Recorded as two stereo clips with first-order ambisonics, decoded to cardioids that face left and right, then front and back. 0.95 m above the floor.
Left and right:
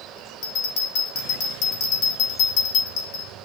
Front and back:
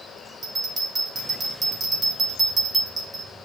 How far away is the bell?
About 4 m.